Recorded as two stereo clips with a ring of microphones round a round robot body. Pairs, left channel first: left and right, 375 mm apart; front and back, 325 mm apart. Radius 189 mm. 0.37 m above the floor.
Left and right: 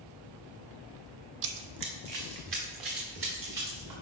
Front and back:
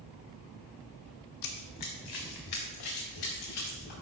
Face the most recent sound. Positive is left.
turn(degrees=-50)